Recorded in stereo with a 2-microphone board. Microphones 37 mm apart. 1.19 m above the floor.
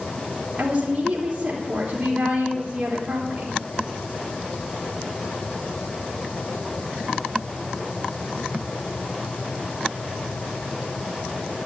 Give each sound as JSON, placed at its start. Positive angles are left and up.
{"t": 0.6, "sound": "a woman speaking", "side_deg": -25, "distance_m": 3.5}